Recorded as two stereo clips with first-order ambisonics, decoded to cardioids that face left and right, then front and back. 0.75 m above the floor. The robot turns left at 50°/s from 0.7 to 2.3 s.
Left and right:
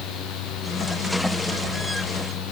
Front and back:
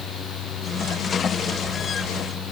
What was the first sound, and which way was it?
Only background noise.